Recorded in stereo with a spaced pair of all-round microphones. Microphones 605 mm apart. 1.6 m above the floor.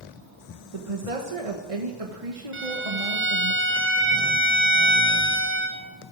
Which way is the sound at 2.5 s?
20° right (ahead or behind).